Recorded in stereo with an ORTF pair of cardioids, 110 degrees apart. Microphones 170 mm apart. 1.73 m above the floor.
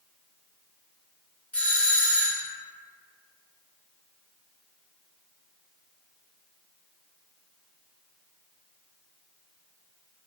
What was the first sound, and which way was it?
A doorbell, 10° left.